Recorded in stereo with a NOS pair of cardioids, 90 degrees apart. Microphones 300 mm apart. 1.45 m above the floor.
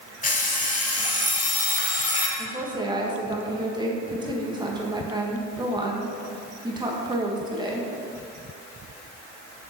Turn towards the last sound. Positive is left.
turn(degrees=-15)